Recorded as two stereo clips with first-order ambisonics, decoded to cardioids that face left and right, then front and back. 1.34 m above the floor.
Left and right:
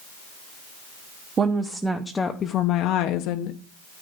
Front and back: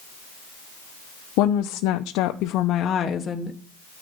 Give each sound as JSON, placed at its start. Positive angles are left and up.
{"t": 1.4, "sound": "a woman speaking", "azimuth_deg": -25, "distance_m": 1.0}